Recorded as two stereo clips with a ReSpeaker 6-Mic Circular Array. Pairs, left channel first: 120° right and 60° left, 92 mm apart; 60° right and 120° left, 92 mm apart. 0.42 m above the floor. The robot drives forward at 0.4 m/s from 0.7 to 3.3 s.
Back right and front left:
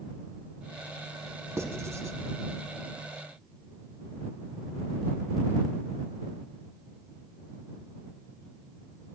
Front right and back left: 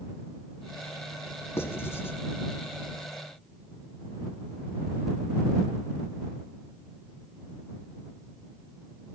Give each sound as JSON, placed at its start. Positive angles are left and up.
{"t": 1.6, "sound": "writing", "azimuth_deg": 0, "distance_m": 1.7}